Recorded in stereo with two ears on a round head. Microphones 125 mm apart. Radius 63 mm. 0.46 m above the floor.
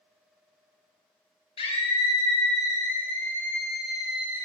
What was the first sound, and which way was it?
A scream, 40° left (ahead or behind).